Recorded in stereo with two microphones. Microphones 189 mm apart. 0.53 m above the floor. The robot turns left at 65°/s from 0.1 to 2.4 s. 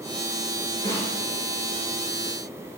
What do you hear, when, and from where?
0.8 s a snare drum: 65° right (ahead or behind), 2 m; by 1.1 s 45° right (ahead or behind), 2 m